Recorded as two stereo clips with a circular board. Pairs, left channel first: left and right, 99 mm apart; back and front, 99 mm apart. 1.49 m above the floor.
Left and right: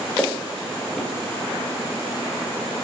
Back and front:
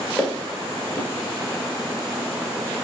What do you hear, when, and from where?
0.2 s footsteps: 150° left, 1.5 m